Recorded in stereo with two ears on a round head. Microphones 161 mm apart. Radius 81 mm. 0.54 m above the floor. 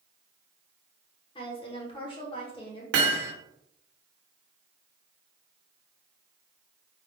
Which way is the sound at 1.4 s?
30° left (ahead or behind).